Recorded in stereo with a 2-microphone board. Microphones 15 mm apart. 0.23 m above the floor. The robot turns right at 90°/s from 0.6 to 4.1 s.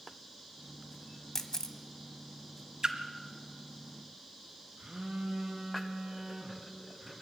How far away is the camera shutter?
About 1.1 m.